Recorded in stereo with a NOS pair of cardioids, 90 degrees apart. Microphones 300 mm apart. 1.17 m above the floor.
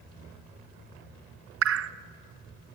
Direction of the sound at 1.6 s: 50° right.